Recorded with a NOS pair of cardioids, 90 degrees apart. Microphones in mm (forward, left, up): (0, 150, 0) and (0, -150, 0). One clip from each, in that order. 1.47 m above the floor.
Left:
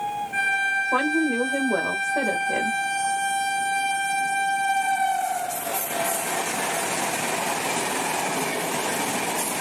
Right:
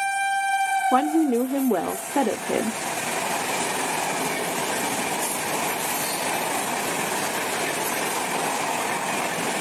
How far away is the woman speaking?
About 0.7 m.